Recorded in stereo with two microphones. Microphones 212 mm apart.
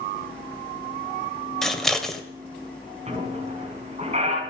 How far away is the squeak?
About 4.5 m.